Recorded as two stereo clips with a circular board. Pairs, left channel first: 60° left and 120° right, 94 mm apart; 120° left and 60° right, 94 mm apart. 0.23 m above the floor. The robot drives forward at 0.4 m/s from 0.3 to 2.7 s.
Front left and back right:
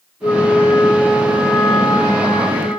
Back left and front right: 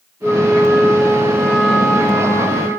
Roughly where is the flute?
Ahead left.